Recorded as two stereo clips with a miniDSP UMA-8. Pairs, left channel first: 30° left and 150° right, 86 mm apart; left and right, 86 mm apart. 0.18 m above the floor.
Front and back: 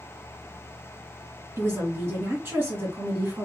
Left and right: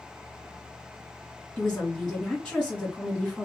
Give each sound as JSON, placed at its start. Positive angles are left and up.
{"t": 1.6, "sound": "a woman speaking", "azimuth_deg": 165, "distance_m": 1.8}